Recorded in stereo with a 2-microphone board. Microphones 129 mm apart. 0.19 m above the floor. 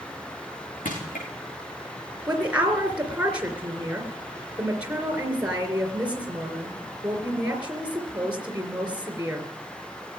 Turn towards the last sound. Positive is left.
turn(degrees=-10)  # may be behind; listen again after turning